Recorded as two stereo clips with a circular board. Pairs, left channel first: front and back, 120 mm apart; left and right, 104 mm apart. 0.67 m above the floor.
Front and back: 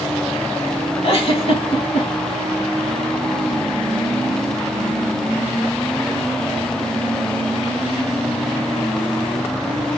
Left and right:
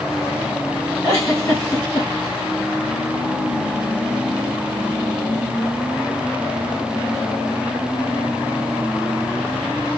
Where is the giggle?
25° left, 2.5 m.